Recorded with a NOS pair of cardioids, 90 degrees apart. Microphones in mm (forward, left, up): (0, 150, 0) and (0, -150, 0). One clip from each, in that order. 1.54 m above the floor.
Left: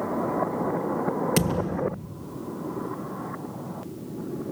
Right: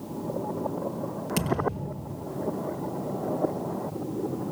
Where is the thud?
45° left, 7 m.